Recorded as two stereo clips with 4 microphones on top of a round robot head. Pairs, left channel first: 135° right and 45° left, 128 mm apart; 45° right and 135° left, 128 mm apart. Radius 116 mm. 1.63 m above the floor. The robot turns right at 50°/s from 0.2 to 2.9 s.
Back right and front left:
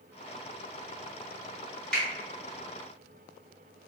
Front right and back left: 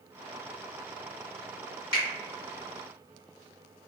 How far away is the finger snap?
About 1.0 m.